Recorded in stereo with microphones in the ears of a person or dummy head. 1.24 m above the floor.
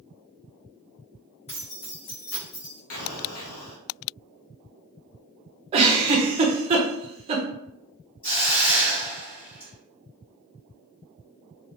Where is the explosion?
80° left, 0.6 m.